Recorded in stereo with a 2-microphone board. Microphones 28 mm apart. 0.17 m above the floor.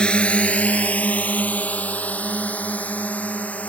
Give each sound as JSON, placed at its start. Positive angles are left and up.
{"t": 0.0, "sound": "a drone", "side_deg": 40}